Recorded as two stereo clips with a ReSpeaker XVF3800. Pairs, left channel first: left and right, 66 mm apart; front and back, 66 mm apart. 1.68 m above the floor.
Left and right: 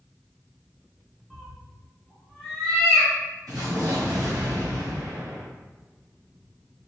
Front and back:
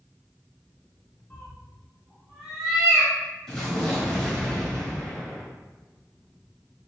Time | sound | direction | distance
1.3 | a cat meowing | 15° right | 1.2 m
3.5 | an explosion | 80° right | 1.0 m